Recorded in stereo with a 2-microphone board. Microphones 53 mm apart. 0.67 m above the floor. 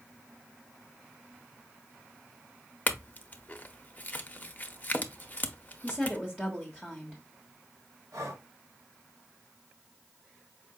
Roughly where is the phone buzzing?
I don't hear a phone buzzing.